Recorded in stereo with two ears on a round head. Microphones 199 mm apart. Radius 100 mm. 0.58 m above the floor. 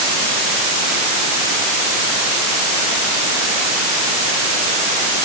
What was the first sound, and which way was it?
Only background noise.